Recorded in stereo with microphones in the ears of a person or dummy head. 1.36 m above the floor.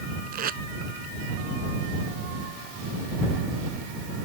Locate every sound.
0.3 s tape being pulled: 55° right (ahead or behind)